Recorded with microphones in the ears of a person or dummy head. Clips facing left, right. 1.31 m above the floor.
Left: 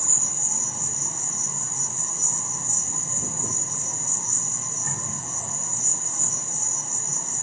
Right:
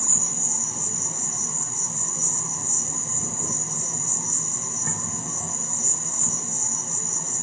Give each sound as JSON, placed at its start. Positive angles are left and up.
{"t": 0.0, "sound": "an insect", "side_deg": -70, "distance_m": 1.3}